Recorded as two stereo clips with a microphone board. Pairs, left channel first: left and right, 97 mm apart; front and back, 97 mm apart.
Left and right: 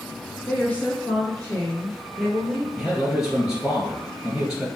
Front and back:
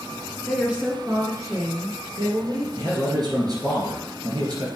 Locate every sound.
0.5 s a woman speaking: 75° left, 1.2 m; by 2.7 s 175° left, 2.5 m
2.8 s a man speaking: 175° right, 2.5 m